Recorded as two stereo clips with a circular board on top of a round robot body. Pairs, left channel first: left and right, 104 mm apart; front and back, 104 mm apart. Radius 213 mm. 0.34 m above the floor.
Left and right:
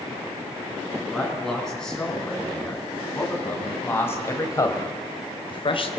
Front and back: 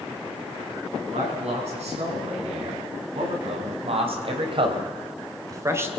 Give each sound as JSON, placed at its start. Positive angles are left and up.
{"t": 1.1, "sound": "a man speaking", "azimuth_deg": 175, "distance_m": 7.5}